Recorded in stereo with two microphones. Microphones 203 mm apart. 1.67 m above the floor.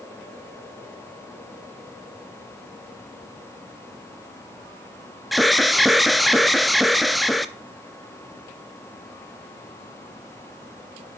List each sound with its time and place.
5.3 s an alarm: centre (ahead or behind), 0.8 m